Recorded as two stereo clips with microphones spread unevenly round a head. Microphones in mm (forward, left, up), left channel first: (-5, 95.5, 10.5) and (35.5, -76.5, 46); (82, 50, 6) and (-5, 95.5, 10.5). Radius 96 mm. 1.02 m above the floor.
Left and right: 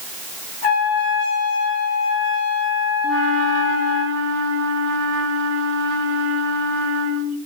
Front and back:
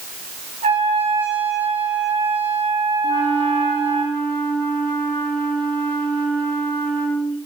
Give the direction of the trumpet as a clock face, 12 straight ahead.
7 o'clock.